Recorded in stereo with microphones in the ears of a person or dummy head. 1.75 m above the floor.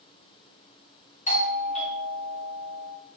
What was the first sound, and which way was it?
A doorbell, 40° left (ahead or behind).